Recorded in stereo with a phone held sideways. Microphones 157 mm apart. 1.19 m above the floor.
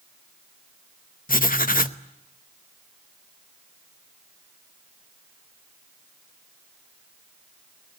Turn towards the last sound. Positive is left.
turn(degrees=65)  # may be behind; listen again after turning